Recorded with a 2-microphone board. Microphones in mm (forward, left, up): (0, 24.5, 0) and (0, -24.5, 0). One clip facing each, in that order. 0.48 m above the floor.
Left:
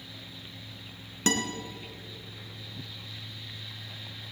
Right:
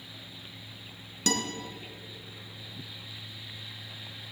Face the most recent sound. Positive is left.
turn(degrees=30)  # may be behind; listen again after turning